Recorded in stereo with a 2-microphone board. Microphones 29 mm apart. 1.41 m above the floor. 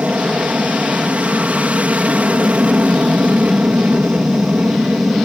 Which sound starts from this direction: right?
An aircraft, at 0.0 s.